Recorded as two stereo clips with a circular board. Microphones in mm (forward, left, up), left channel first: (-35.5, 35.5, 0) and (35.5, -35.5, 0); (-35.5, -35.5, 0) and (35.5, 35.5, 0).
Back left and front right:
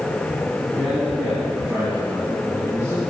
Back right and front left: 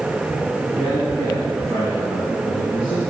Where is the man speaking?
50° left, 2.5 m; by 3.0 s 15° left, 3.5 m.